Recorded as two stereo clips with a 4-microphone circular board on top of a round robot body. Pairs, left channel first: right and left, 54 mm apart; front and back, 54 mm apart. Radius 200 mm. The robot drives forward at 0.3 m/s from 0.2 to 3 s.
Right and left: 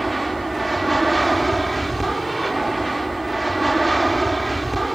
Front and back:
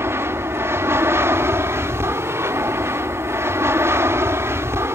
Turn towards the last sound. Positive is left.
turn(degrees=-175)